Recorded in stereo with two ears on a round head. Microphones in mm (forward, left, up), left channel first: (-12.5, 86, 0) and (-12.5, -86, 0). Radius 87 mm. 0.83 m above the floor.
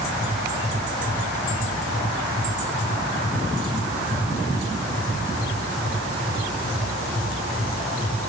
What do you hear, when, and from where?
Only background noise.